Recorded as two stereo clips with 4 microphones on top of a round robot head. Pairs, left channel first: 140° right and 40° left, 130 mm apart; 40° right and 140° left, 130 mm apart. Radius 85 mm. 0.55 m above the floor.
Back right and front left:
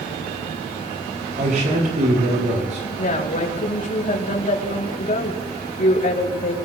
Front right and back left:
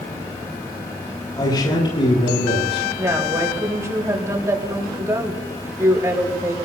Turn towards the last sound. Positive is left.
turn(degrees=-155)